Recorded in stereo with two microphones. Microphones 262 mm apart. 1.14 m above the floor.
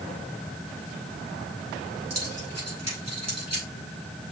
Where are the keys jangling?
75° right (ahead or behind), 5.5 m; by 3.7 s 85° right, 5 m.